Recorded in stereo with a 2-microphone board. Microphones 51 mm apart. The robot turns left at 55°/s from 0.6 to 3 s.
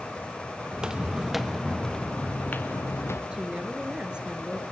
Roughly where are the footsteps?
Centre.